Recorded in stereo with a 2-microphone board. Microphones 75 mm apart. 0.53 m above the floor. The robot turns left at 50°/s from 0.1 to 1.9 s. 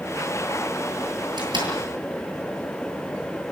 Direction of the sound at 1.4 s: 70° right (ahead or behind).